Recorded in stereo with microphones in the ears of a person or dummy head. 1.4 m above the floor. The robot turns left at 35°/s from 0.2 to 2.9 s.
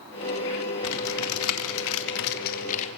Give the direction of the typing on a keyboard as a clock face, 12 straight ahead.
8 o'clock.